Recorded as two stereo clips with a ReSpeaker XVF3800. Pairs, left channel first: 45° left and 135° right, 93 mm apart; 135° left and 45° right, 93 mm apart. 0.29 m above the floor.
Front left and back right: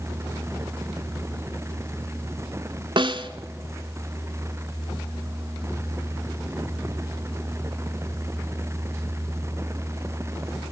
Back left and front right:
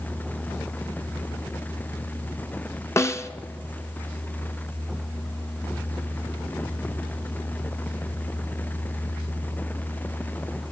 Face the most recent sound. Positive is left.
turn(degrees=-165)